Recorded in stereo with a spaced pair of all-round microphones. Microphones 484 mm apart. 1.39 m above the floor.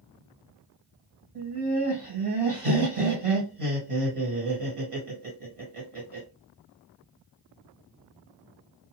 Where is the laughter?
85° right, 1.7 m.